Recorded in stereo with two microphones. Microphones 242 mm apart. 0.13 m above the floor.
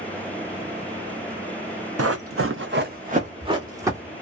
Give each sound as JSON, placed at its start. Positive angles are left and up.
{"t": 2.0, "sound": "running footsteps", "side_deg": -80, "distance_m": 0.7}